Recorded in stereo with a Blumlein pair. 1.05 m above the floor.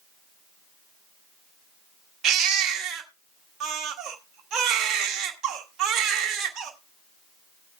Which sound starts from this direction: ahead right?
A baby crying, at 2.2 s.